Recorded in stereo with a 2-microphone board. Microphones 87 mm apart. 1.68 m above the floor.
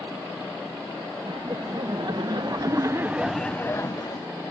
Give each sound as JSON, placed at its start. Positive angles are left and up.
{"t": 1.2, "sound": "laughter", "side_deg": -80}